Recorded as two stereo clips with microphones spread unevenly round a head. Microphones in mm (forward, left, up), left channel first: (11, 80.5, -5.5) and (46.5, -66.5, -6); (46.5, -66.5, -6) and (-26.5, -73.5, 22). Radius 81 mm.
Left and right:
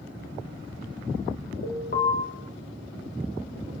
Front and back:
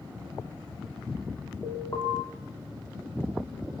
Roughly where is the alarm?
Left.